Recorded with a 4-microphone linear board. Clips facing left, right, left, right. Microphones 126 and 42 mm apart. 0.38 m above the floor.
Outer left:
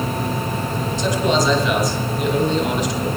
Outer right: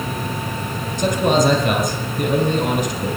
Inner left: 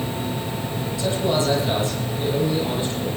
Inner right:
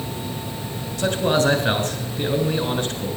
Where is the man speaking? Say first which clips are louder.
Outer right 3 dB, inner right 3 dB; 60° right (ahead or behind), 3 m.